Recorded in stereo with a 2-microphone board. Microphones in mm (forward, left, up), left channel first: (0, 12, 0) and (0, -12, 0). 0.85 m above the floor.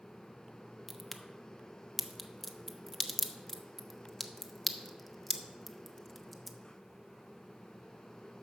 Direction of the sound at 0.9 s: 5° left (ahead or behind).